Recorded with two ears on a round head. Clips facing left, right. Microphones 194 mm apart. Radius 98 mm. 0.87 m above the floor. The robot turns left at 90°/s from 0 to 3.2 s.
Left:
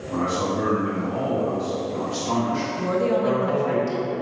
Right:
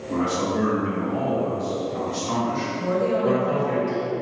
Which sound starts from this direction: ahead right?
A man speaking, at 0.1 s.